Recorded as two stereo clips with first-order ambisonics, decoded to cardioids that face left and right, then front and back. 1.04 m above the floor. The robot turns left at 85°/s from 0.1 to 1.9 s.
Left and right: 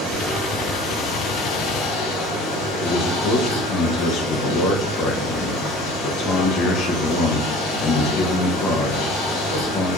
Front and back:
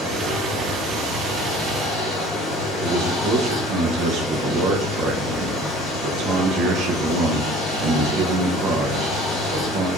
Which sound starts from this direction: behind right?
Running water, at 0.0 s.